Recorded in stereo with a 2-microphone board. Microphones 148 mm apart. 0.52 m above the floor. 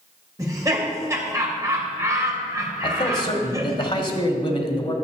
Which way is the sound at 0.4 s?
20° right (ahead or behind).